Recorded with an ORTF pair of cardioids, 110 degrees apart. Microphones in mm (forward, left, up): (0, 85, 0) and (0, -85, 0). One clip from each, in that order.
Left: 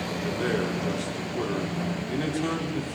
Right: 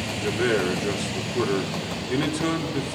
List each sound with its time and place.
0.2 s a man speaking: 35° right, 3 m